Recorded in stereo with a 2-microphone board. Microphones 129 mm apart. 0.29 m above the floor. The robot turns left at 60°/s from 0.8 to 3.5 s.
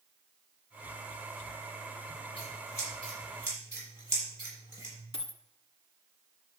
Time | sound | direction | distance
2.4 | scissors | 50° left (ahead or behind) | 6.5 m
5.1 | a dropped coin | 50° left (ahead or behind) | 0.7 m